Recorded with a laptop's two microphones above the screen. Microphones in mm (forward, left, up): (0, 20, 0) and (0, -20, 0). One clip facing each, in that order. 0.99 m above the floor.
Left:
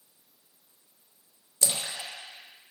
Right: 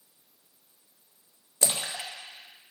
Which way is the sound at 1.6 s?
30° right (ahead or behind).